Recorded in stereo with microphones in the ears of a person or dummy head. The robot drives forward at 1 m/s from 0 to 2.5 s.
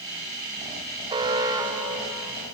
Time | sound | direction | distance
1.1 | an alarm | 25° right (ahead or behind) | 1.6 m